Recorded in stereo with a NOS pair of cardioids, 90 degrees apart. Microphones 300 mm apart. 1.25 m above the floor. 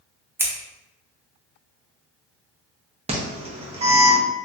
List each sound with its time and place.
0.4 s scissors: 10° right, 0.7 m
3.1 s an alarm: 20° right, 0.9 m